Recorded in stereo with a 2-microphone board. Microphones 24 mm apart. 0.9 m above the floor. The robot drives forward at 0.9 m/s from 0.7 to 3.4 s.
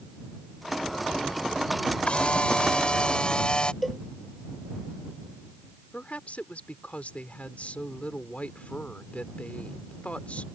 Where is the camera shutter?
55° left (ahead or behind); by 3.7 s 45° left (ahead or behind).